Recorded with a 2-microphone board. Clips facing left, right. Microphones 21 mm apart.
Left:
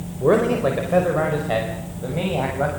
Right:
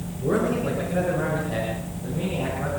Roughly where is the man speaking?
Left.